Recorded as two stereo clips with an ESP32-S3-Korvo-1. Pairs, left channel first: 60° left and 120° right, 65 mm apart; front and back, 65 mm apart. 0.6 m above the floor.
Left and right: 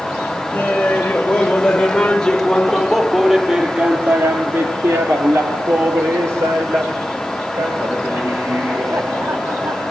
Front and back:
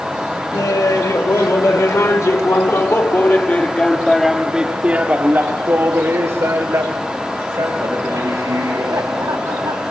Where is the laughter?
5° right, 3.5 m; by 9.9 s 160° right, 5.5 m.